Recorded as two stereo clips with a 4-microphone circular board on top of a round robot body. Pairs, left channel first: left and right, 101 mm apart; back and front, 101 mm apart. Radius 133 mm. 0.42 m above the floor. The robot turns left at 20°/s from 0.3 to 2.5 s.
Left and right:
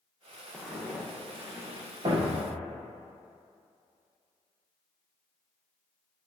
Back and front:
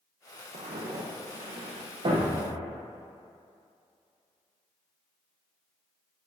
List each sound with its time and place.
0.5 s footsteps: straight ahead, 1.9 m; by 1.9 s 35° right, 2.5 m
2.0 s a thud: 40° right, 2 m; by 2.6 s 50° right, 2 m